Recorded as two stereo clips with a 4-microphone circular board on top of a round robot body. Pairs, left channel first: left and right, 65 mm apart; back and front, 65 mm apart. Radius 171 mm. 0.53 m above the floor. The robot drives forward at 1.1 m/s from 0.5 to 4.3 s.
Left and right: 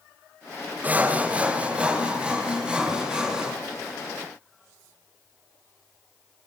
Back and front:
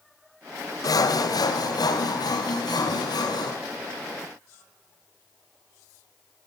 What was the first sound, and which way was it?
Sawing, 155° right.